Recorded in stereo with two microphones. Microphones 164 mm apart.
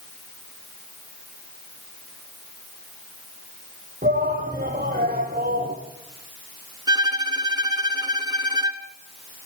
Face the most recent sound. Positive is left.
turn(degrees=-25)  # may be behind; listen again after turning